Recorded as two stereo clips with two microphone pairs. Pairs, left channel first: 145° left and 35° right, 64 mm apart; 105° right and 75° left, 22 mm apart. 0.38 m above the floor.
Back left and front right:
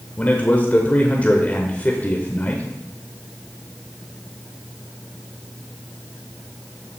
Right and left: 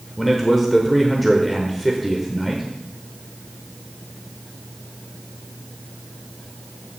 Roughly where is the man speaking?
Behind left.